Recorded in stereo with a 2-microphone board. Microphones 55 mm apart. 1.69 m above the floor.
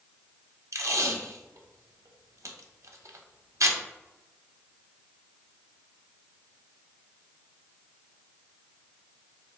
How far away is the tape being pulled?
About 0.6 m.